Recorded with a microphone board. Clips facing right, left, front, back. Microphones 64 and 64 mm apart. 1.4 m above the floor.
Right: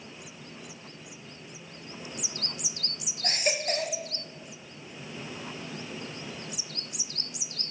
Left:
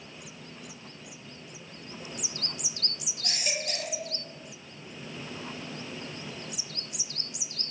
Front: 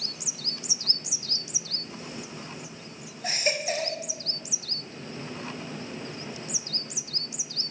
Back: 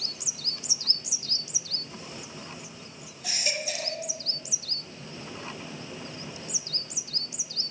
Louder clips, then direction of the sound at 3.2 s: Right 5 dB, front 5 dB; 45° right.